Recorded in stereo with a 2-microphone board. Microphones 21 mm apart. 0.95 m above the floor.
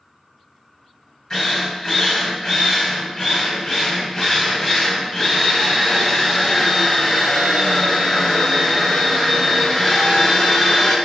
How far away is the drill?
About 2 m.